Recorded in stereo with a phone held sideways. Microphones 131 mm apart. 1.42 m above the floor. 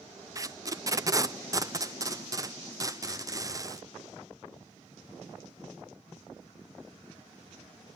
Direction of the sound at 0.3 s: 25° right (ahead or behind).